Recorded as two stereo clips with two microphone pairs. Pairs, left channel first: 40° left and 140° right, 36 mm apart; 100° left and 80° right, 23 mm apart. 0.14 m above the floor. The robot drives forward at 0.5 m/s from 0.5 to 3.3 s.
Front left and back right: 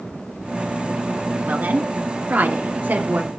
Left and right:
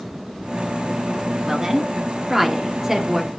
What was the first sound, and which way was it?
A woman speaking, 140° right.